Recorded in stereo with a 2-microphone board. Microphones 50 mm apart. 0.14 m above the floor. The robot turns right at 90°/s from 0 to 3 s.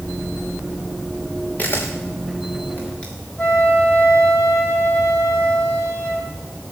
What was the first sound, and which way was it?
A camera shutter, 35° left (ahead or behind).